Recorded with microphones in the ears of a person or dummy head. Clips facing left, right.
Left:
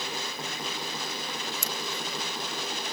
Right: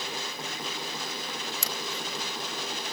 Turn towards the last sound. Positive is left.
turn(degrees=-60)  # may be behind; listen again after turning